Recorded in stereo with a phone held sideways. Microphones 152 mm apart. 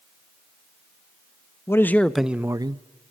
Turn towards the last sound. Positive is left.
turn(degrees=-35)  # may be behind; listen again after turning